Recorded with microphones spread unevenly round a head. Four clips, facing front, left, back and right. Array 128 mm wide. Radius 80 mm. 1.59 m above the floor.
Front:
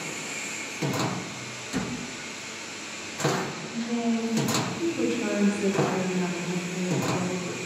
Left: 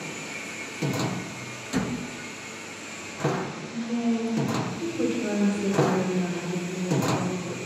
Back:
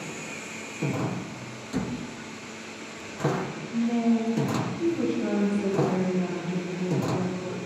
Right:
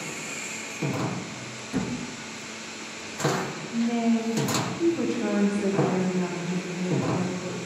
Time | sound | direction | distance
3.7 | a woman speaking | 90° right | 1.8 m